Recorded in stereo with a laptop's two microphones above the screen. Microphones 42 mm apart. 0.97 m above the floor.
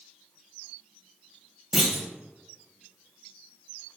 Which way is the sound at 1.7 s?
10° right (ahead or behind).